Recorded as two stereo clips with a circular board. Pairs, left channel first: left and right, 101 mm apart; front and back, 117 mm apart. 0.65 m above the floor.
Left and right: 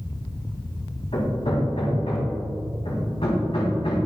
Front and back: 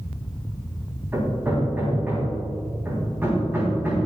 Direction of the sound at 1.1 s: 110° left.